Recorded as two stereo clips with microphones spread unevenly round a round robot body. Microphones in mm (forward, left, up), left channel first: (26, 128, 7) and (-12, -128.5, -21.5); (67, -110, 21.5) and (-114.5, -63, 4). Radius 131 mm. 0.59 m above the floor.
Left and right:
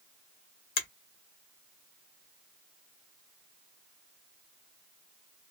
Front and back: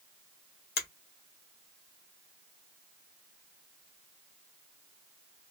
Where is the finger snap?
25° left, 0.7 m.